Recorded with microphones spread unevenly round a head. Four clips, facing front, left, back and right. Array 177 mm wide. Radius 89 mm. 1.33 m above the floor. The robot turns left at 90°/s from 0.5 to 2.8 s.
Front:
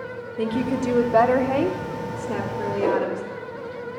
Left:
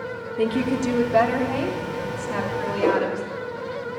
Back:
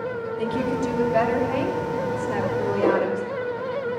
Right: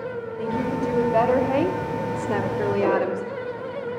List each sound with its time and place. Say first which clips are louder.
0.4 s a woman speaking: left 4 dB, front 2 dB; 60° left, 1.1 m; by 3.3 s 150° right, 1.1 m
2.8 s a whoosh: left 2 dB, back 1 dB; 170° left, 4.5 m